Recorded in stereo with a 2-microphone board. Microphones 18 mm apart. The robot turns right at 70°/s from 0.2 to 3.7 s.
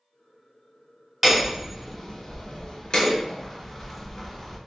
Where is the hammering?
Straight ahead, 1.3 m; by 4.6 s 175° left, 1.3 m.